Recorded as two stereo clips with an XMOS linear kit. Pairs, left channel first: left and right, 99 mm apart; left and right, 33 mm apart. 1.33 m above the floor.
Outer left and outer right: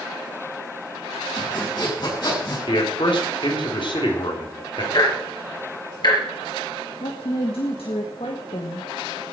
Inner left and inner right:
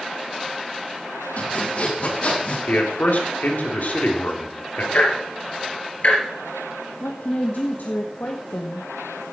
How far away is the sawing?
About 7.5 m.